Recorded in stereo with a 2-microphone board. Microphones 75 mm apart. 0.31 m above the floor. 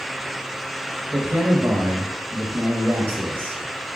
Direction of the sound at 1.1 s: 35° right (ahead or behind).